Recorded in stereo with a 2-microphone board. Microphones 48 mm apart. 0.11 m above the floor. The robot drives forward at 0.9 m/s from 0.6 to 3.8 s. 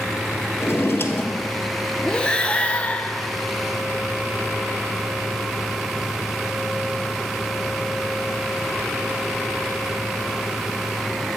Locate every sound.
0.6 s a drawer: 60° left (ahead or behind), 0.9 m; by 1.8 s 35° left (ahead or behind), 1.3 m
2.0 s breathing: 15° left (ahead or behind), 0.9 m; by 3.5 s 20° left (ahead or behind), 0.8 m